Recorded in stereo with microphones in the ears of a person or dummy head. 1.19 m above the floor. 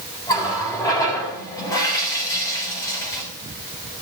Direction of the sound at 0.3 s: 20° left (ahead or behind).